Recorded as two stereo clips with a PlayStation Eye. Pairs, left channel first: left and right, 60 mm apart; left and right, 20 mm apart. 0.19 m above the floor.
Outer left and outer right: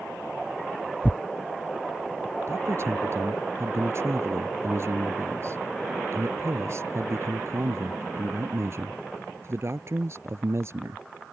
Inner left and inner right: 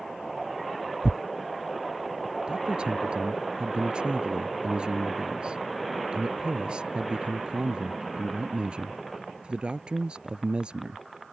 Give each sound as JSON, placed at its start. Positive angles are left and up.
{"t": 1.0, "sound": "tearing paper", "side_deg": 20}
{"t": 2.5, "sound": "a man speaking", "side_deg": -45}